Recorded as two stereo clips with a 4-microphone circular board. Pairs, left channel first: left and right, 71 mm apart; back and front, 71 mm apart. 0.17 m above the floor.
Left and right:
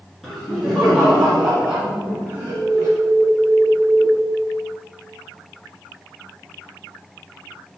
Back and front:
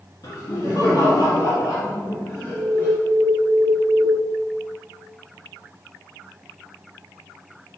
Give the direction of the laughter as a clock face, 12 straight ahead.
6 o'clock.